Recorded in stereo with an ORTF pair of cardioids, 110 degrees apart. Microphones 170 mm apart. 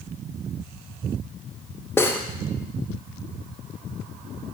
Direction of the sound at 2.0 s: 15° left.